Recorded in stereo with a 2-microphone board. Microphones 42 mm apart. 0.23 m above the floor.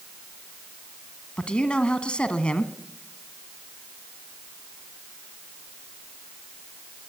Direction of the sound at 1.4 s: 25° left (ahead or behind).